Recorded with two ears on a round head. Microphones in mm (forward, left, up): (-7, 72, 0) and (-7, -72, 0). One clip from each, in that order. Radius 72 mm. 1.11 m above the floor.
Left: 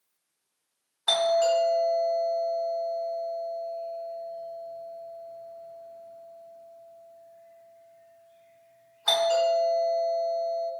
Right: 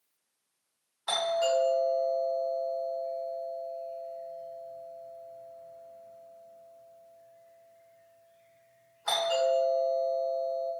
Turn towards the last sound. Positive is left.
turn(degrees=20)  # may be behind; listen again after turning